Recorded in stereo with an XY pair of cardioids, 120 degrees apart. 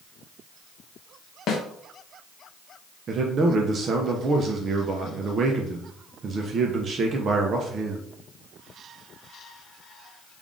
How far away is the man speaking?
About 0.6 m.